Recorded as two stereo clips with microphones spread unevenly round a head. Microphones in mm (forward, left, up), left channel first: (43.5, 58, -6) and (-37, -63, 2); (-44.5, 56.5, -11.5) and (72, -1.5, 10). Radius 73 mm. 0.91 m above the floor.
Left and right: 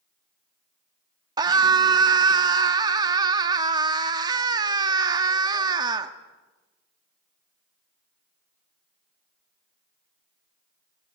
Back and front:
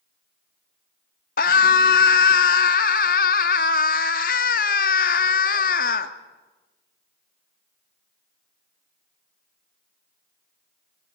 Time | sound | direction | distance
1.4 | a scream | 170° left | 1.5 m